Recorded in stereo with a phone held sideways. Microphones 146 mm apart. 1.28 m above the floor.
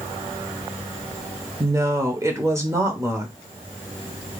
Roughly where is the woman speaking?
Centre.